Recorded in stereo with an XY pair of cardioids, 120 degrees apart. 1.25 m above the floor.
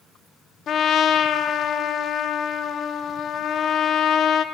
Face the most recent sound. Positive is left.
turn(degrees=55)